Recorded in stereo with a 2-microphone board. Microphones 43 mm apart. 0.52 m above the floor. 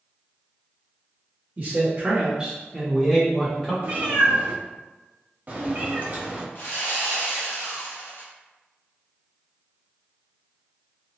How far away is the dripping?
No dripping in this recording.